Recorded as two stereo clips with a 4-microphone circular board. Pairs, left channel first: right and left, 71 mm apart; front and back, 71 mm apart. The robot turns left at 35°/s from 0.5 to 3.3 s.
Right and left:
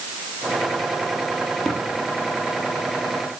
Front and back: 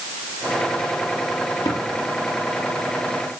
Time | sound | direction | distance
1.6 | tapping | 5° right | 4.5 m